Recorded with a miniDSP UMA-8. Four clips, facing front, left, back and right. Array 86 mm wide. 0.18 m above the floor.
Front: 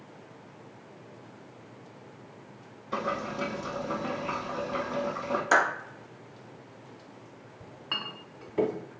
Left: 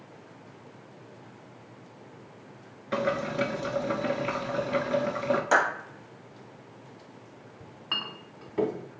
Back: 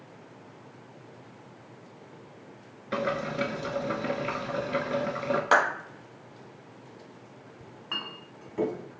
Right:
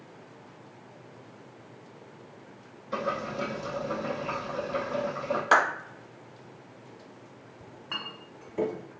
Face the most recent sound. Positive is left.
turn(degrees=55)